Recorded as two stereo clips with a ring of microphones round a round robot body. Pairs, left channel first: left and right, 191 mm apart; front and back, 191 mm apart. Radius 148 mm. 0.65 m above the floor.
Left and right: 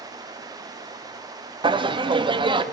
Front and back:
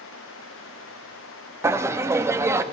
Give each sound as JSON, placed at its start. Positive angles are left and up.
{"t": 1.6, "sound": "laughter", "azimuth_deg": -120, "distance_m": 0.8}